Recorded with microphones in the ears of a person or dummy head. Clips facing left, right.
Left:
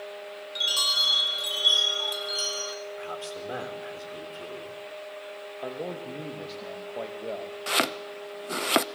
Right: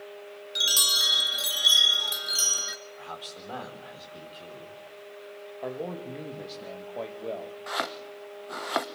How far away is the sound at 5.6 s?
About 2.5 m.